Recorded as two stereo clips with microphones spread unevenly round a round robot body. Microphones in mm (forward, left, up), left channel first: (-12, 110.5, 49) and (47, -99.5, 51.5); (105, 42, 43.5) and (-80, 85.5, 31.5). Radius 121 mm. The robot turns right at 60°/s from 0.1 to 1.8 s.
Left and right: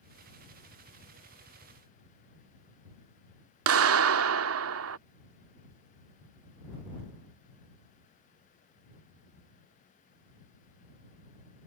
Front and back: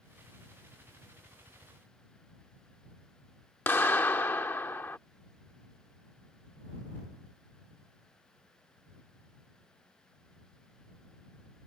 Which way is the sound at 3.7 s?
95° right.